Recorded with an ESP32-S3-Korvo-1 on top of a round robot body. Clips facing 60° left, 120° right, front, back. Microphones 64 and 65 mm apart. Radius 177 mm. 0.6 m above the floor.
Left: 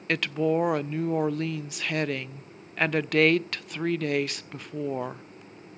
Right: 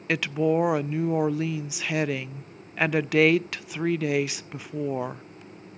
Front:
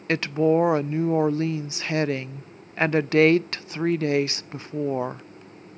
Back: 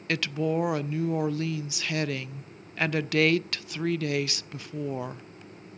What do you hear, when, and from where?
0.1 s a woman speaking: 40° right, 0.6 m